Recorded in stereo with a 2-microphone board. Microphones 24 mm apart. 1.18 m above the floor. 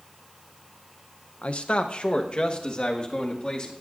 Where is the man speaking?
65° left (ahead or behind), 0.5 m; by 3.7 s 45° left (ahead or behind), 2 m.